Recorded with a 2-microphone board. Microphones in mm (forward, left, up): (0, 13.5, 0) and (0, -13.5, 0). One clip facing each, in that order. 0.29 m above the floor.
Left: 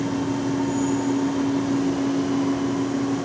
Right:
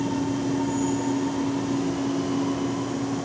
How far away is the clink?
No clink in this recording.